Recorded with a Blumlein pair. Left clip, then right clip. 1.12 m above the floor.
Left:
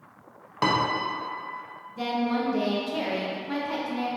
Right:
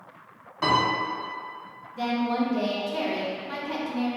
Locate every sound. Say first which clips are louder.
0.6 s a piano: right 1 dB; 65° left, 0.8 m
2.0 s a woman speaking: right 1 dB; straight ahead, 0.8 m